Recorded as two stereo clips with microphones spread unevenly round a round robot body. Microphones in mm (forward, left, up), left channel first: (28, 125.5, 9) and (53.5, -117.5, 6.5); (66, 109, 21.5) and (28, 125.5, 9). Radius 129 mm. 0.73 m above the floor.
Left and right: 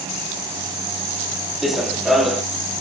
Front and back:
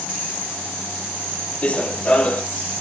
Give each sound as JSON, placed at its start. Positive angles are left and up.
{"t": 1.6, "sound": "running footsteps", "azimuth_deg": 5, "distance_m": 1.0}